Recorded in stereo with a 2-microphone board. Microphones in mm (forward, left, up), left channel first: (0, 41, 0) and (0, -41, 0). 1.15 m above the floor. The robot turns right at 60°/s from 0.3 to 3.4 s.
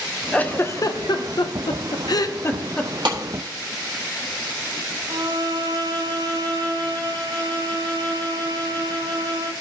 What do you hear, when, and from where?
0.3 s a giggle: 15° left (ahead or behind), 0.6 m; by 2.9 s 10° left (ahead or behind), 0.6 m
3.0 s a clap: 70° right (ahead or behind), 1.8 m; by 3.2 s 60° right (ahead or behind), 1.8 m
5.1 s a violin: 60° right (ahead or behind), 1.8 m